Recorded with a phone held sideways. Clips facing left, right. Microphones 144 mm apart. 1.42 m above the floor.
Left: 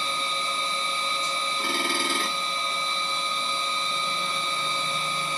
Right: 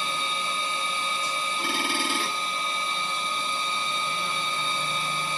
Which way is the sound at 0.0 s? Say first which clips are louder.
Even; 10° right (ahead or behind).